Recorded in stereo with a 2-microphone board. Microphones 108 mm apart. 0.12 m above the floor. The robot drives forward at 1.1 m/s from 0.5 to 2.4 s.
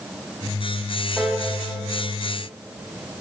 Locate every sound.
1.2 s a piano: 5° right (ahead or behind), 6 m